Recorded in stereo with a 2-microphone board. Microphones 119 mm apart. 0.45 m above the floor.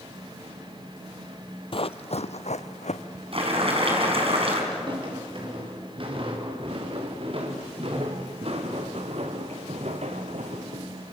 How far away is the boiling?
About 4.5 m.